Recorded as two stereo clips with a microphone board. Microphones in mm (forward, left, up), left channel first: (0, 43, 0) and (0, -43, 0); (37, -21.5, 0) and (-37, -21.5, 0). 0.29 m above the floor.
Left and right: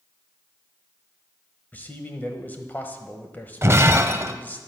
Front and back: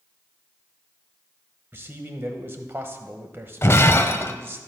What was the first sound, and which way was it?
A man speaking, 145° left.